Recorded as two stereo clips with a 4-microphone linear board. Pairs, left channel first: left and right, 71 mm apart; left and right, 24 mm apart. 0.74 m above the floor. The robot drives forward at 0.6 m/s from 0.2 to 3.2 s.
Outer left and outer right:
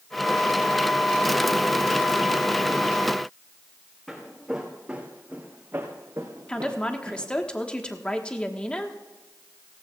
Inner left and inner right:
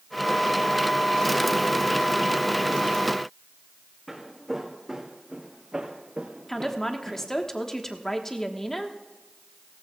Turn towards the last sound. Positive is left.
turn(degrees=15)  # may be behind; listen again after turning